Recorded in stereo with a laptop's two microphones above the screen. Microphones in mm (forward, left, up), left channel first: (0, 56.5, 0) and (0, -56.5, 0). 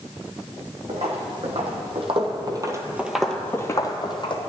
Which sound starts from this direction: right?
Footsteps, at 0.9 s.